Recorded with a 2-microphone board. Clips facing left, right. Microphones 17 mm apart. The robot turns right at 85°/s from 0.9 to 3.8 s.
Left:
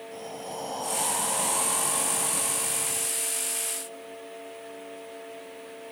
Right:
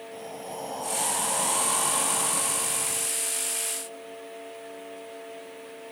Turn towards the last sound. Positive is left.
turn(degrees=40)